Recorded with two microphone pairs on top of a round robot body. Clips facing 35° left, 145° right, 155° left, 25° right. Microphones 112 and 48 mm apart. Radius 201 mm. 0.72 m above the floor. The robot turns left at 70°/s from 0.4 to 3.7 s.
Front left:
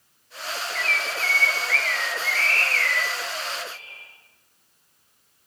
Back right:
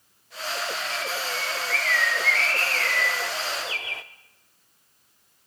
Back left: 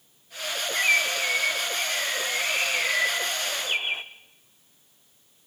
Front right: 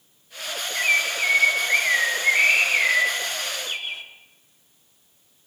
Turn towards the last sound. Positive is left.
turn(degrees=-145)